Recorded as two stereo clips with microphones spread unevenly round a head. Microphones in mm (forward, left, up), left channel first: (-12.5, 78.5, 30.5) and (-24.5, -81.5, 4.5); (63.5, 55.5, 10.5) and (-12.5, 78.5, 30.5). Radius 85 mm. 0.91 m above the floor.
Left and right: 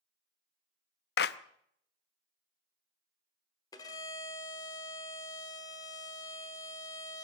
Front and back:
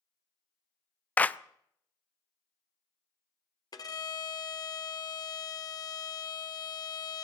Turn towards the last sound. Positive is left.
turn(degrees=20)